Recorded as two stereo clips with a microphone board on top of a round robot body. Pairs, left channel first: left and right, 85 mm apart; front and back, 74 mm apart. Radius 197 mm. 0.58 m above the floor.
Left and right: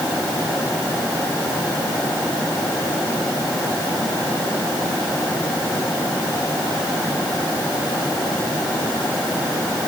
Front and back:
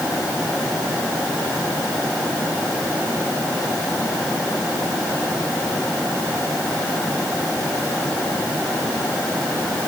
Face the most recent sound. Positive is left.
No sound to turn to.